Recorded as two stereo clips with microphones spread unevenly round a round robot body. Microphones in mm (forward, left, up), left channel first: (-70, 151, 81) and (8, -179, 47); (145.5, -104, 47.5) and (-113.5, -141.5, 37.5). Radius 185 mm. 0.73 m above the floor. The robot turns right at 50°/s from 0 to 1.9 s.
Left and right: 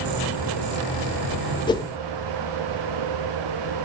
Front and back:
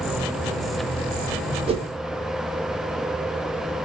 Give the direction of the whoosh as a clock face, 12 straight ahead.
6 o'clock.